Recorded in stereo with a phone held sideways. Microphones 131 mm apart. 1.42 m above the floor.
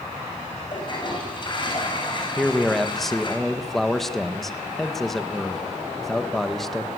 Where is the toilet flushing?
35° left (ahead or behind), 6.5 m.